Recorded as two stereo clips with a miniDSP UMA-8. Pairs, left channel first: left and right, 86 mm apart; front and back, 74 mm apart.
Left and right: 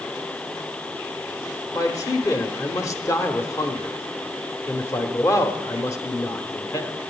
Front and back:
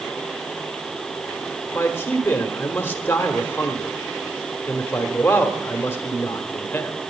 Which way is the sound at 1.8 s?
55° left.